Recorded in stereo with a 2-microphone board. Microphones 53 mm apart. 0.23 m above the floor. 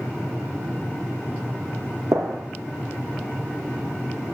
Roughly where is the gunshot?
Right.